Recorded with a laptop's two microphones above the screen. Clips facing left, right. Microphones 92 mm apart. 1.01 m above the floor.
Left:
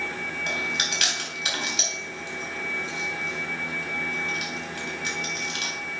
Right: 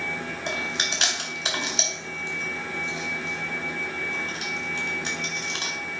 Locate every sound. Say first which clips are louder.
0.5 s chewing: even; 25° right (ahead or behind), 3.5 m